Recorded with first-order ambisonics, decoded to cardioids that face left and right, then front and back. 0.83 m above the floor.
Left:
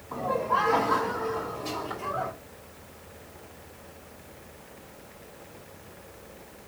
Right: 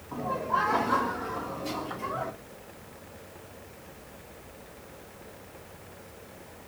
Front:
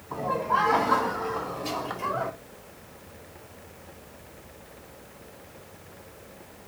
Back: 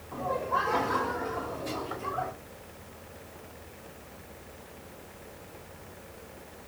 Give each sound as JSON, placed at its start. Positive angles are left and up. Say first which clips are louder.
{"t": 0.1, "sound": "laughter", "louder": "left 3 dB, front 4 dB", "azimuth_deg": 20, "distance_m": 3.0}